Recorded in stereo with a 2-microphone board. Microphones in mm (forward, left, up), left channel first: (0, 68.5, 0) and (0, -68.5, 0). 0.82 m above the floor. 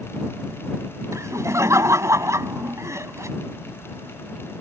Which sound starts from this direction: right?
Laughter, at 1.1 s.